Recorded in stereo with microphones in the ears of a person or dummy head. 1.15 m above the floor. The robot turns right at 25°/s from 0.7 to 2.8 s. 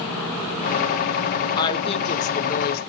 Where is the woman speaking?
25° left, 1.4 m; by 2.9 s 55° left, 1.4 m.